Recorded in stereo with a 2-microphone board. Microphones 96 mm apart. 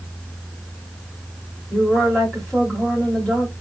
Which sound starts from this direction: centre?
A woman speaking, at 1.7 s.